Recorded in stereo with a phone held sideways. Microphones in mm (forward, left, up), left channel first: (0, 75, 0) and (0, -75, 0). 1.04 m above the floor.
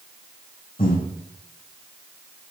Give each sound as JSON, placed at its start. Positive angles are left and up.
{"t": 0.8, "sound": "breathing", "side_deg": 70, "distance_m": 2.5}